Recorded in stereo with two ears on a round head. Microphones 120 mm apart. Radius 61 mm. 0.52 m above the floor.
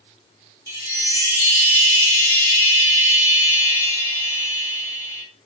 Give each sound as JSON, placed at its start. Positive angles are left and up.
{"t": 0.7, "sound": "a chime", "side_deg": 20, "distance_m": 0.9}